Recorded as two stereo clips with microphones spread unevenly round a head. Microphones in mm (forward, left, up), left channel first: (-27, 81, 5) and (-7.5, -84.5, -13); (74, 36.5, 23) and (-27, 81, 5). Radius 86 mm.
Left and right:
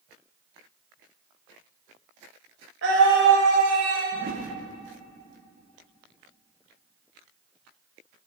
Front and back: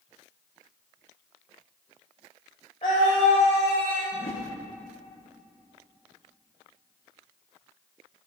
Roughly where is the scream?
Right.